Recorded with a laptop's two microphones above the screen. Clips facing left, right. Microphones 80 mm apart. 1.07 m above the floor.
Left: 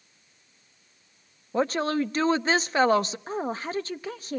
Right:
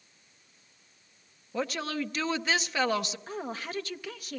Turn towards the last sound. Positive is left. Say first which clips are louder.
# left 6 dB
turn(degrees=30)  # may be behind; listen again after turning